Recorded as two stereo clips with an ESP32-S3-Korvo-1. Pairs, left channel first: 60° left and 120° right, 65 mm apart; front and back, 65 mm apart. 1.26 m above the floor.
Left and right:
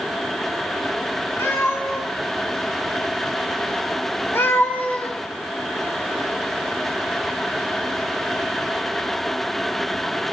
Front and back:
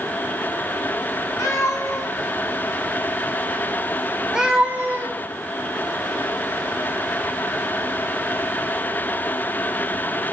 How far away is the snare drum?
I don't hear a snare drum.